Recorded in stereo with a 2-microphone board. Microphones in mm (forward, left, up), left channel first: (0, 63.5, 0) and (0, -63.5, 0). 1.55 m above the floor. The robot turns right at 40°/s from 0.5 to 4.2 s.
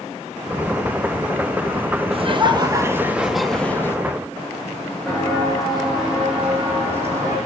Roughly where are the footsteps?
Centre.